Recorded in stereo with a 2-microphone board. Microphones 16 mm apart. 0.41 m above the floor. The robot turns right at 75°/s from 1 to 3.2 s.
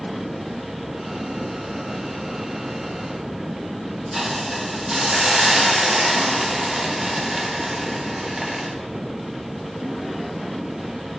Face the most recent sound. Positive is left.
turn(degrees=-25)  # may be behind; listen again after turning